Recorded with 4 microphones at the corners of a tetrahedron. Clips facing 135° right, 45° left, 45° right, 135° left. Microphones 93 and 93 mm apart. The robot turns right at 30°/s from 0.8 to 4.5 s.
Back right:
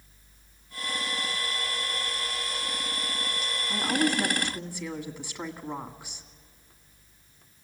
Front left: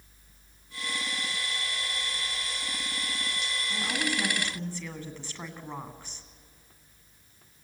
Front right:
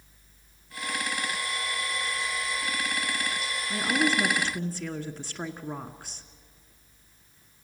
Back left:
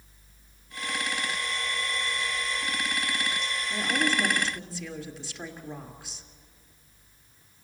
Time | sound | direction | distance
3.7 | a woman speaking | 85° right | 1.7 m